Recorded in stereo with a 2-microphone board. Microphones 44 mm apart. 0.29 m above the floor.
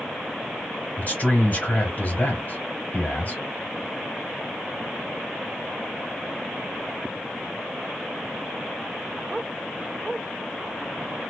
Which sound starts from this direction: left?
A man speaking, at 1.0 s.